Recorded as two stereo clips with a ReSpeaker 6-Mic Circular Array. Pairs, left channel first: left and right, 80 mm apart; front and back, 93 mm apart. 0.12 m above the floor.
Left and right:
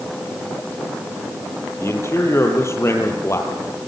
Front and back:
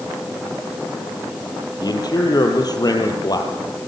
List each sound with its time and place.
1.8 s a man speaking: 40° left, 3.5 m